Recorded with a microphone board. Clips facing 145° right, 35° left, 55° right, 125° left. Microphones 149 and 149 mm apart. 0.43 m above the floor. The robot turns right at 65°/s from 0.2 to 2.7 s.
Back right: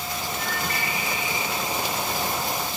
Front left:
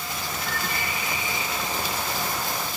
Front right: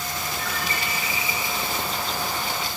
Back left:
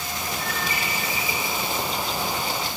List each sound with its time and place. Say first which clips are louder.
0.4 s a bird: even, back left 1 dB; 175° left, 6 m; by 1.4 s 115° right, 6 m